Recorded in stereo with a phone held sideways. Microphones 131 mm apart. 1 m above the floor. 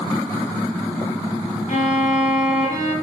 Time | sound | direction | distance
1.7 | a violin | 65° left (ahead or behind) | 0.9 m